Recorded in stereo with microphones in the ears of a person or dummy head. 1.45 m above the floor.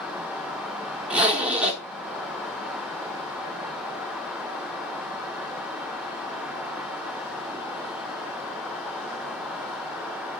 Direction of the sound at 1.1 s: 10° right (ahead or behind).